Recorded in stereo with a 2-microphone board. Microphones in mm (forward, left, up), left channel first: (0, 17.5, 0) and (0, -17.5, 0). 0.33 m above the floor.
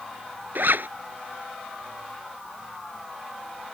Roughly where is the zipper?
Right.